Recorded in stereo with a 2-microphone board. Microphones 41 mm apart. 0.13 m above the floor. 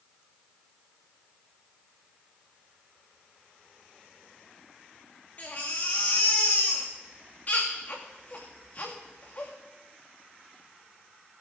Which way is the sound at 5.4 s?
35° left (ahead or behind).